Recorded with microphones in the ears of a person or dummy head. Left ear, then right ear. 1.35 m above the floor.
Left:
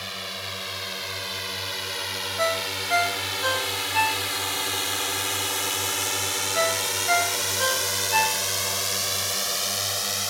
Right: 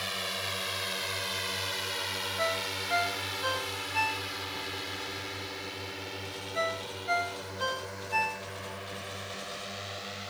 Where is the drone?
10° right (ahead or behind); by 10.3 s 85° left.